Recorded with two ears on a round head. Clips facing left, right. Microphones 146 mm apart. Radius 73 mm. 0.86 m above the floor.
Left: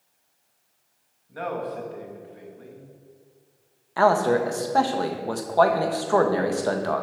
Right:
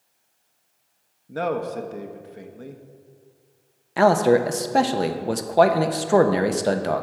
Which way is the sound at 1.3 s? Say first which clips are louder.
Right 5 dB; 55° right (ahead or behind).